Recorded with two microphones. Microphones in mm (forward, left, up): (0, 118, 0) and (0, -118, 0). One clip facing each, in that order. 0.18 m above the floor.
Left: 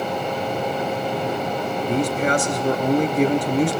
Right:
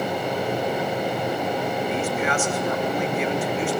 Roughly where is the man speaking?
Left.